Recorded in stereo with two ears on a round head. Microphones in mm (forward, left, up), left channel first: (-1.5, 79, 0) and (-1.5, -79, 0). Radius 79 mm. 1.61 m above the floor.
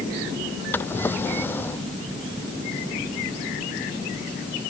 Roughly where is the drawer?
Centre.